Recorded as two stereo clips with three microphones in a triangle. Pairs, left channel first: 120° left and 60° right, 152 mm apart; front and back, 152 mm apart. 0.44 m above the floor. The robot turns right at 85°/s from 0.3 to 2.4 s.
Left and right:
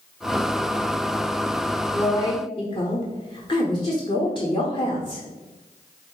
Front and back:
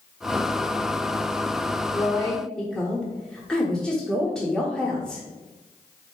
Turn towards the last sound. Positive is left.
turn(degrees=85)